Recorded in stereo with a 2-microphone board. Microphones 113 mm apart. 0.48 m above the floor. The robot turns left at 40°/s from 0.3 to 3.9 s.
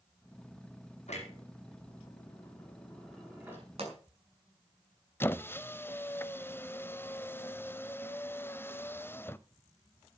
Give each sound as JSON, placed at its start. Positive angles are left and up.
{"t": 1.1, "sound": "a clunk", "side_deg": 80, "distance_m": 5.0}
{"t": 3.8, "sound": "a pop", "side_deg": -60, "distance_m": 6.0}
{"t": 5.2, "sound": "a squeak", "side_deg": 20, "distance_m": 0.6}